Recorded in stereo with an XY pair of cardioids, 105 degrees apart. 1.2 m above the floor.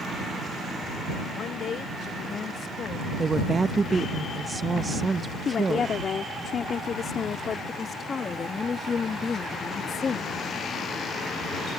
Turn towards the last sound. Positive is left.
turn(degrees=35)